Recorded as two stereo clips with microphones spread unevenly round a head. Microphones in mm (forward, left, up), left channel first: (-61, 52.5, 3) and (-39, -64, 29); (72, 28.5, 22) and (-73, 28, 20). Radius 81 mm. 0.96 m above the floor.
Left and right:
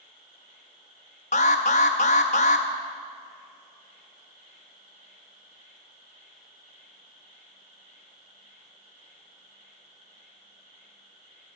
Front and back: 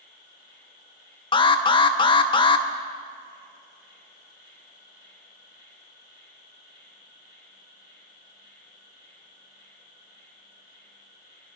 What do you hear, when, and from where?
0.0 s an insect: 35° right, 3.5 m
1.3 s an alarm: 55° left, 0.6 m